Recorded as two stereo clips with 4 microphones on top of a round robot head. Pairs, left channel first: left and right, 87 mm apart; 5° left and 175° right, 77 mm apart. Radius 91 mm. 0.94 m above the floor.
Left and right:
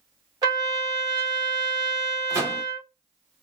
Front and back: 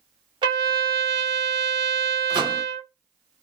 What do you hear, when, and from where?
0.4 s a trumpet: 145° right, 2 m
2.3 s a microwave: 145° right, 2.5 m